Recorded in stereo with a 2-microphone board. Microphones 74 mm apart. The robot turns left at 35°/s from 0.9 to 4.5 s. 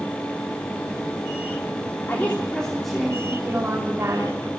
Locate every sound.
2.1 s a woman speaking: 30° left, 3.5 m; by 4.4 s 50° right, 3.5 m